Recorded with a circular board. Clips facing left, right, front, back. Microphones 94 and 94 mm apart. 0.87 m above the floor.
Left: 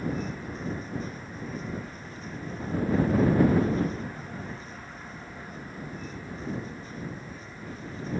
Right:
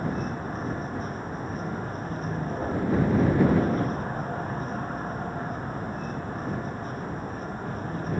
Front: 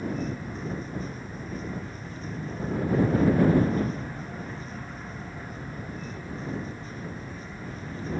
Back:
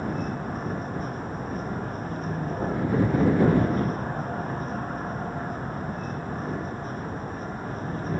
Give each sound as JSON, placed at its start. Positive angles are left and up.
{"t": 0.0, "sound": "a vehicle", "azimuth_deg": -140}